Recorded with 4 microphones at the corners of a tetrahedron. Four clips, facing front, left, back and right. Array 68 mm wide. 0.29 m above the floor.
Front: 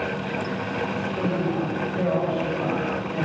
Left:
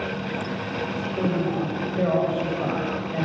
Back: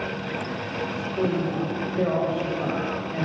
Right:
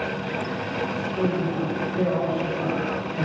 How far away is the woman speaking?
About 1.3 m.